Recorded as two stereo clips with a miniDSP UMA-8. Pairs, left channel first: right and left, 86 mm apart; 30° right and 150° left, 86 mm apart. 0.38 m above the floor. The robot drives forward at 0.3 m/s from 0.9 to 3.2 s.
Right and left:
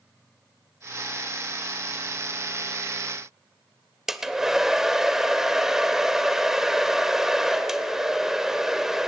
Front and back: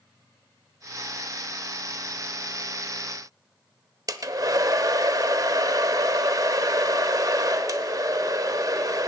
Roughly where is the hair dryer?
Behind.